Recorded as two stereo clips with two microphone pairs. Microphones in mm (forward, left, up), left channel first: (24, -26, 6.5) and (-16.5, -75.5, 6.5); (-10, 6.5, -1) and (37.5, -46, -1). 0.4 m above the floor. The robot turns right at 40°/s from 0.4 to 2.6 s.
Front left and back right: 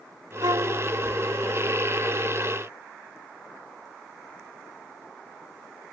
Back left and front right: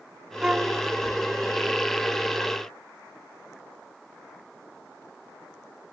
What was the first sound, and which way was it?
A violin, 130° right.